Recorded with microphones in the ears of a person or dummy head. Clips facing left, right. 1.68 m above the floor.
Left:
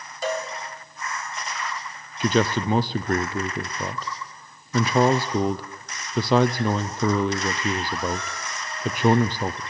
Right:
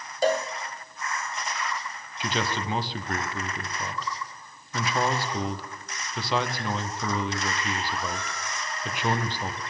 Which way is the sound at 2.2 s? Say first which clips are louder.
Left 8 dB; 40° left (ahead or behind).